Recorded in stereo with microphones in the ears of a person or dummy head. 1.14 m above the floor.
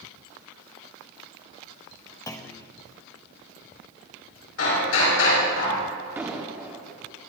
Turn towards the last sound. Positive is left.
turn(degrees=-10)  # may be behind; listen again after turning